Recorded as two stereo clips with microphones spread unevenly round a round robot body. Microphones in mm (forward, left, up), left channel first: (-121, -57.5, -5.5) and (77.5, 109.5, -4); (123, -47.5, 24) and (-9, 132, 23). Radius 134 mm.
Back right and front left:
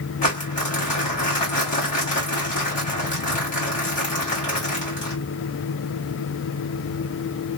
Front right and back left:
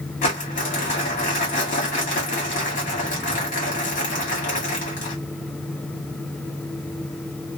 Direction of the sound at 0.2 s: 90° right.